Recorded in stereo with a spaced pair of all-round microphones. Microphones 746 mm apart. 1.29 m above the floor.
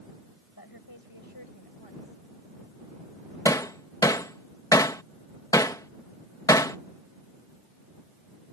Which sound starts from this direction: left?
A woman speaking, at 0.6 s.